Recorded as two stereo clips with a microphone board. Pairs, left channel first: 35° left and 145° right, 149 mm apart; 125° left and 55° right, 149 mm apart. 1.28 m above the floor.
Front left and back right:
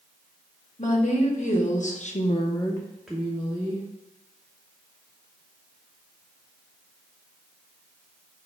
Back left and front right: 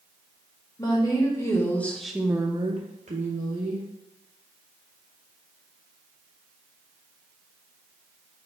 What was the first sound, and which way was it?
A woman speaking, 65° left.